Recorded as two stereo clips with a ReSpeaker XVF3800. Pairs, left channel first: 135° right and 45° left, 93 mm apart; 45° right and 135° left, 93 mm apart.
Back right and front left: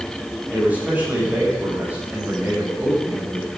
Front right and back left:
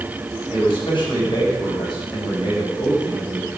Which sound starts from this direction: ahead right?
A man speaking, at 0.5 s.